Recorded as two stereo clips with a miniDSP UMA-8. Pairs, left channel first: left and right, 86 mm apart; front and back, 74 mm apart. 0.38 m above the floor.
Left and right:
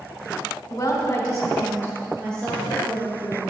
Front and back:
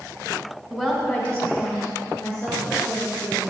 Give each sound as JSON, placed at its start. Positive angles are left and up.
{"t": 0.7, "sound": "a woman speaking", "azimuth_deg": 105, "distance_m": 1.3}